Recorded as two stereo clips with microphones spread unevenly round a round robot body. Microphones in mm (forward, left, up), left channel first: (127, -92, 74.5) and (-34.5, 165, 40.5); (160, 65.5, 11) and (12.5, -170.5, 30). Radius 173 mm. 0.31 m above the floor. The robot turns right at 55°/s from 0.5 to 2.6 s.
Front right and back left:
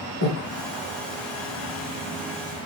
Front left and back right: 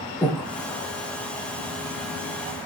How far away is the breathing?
About 4 m.